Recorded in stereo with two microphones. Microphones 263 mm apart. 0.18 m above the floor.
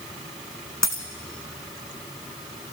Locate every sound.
0.8 s a dropped coin: 85° left, 1.9 m